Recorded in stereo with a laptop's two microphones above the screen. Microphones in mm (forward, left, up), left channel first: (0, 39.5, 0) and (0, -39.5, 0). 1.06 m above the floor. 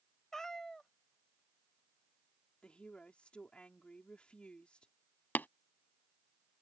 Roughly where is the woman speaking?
Centre.